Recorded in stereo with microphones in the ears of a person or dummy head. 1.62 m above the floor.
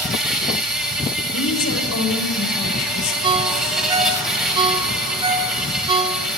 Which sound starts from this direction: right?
A ringtone, at 3.2 s.